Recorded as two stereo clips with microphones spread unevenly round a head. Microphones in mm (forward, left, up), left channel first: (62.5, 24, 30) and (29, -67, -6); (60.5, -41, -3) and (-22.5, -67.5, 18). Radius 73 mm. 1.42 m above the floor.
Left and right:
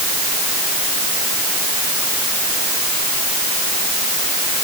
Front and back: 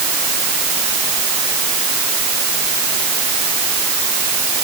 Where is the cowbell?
No cowbell in this recording.